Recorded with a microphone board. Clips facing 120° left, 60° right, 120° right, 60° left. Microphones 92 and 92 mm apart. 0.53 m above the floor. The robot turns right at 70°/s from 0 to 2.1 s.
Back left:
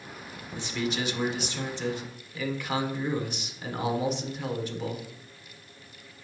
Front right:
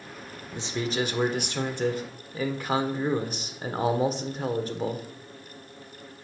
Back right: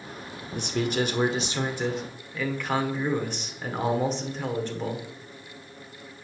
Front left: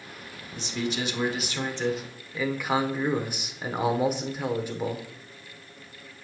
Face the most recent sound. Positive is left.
turn(degrees=-20)